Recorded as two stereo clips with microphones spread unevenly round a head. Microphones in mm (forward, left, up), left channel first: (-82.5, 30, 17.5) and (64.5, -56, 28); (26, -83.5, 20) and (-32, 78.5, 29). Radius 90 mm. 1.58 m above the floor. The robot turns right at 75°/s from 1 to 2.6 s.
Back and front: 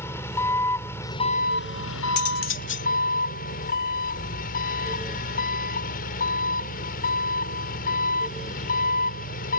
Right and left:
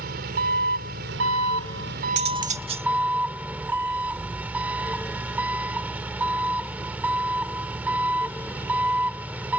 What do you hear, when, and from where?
0.0 s an engine running: 70° left; by 9.6 s 170° right
2.2 s cutlery clinking: 135° left; by 2.9 s 170° left